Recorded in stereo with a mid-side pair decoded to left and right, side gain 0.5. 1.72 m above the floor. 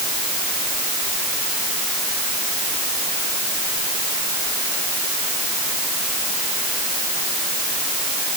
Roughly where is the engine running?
No engine running in this recording.